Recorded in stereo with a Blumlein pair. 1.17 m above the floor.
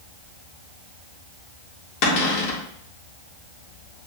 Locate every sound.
2.0 s a cupboard door: 45° left, 1.9 m